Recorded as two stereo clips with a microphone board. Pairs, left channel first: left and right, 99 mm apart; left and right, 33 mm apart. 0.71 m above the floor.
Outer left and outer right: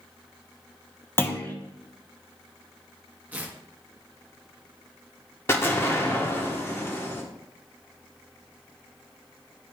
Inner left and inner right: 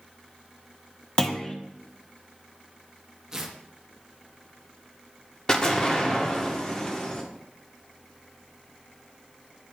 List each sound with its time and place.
1.2 s a clunk: 25° left (ahead or behind), 0.6 m
3.3 s tearing paper: 15° right (ahead or behind), 0.9 m
5.5 s an explosion: 25° left (ahead or behind), 1.1 m